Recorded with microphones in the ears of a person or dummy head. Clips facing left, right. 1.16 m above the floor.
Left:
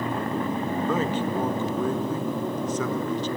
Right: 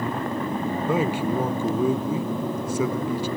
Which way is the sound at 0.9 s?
5° right (ahead or behind).